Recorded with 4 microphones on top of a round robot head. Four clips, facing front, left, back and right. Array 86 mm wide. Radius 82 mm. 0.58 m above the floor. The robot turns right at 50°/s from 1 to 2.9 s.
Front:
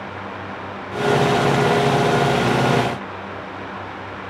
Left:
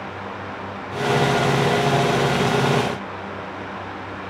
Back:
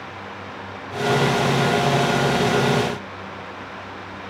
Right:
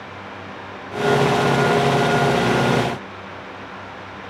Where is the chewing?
I don't hear chewing.